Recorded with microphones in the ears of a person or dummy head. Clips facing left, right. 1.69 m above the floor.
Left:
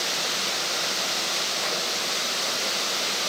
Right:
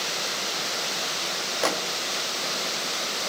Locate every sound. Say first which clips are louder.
1.6 s a microwave: right 8 dB; 60° right (ahead or behind), 2.5 m